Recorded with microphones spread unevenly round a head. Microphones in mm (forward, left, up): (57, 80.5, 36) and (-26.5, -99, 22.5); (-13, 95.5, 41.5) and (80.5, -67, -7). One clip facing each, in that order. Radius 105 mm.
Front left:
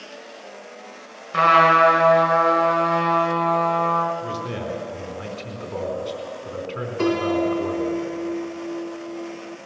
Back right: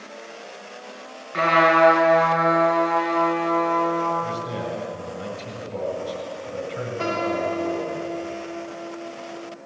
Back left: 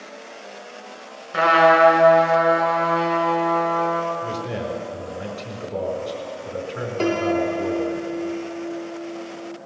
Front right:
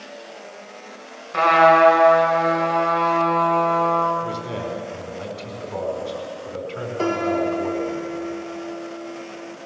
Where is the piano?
25° left, 3 m.